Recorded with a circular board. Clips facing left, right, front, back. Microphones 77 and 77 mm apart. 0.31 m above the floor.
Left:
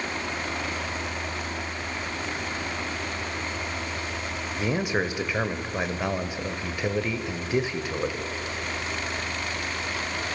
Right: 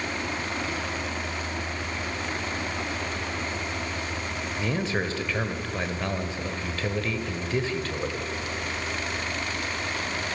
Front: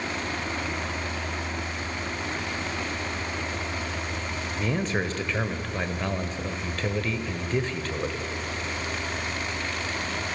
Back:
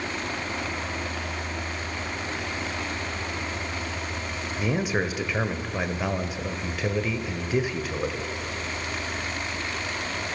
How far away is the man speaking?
About 1.2 m.